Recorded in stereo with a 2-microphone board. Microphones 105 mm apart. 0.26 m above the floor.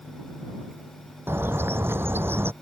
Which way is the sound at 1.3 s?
20° right (ahead or behind).